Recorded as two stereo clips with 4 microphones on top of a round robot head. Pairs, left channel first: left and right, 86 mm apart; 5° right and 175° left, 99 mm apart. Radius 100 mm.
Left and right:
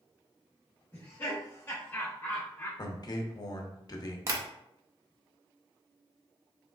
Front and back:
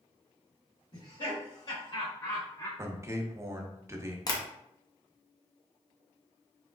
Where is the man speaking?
120° left, 0.9 m.